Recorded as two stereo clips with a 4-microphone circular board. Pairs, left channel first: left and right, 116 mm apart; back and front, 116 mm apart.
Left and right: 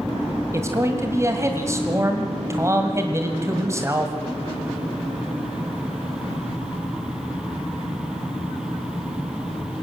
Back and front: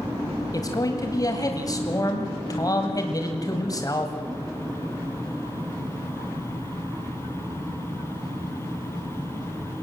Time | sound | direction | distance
0.5 | a man speaking | 140° right | 1.9 m